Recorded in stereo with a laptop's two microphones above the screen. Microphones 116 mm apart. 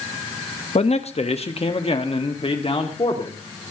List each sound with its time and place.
0.8 s a man speaking: 65° left (ahead or behind), 1.1 m; by 3.4 s 50° left (ahead or behind), 2.5 m